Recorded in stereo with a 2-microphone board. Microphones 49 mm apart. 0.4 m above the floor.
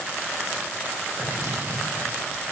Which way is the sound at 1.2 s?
65° right (ahead or behind).